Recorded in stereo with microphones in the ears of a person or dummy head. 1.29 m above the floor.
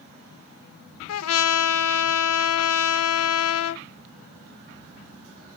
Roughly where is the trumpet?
Left.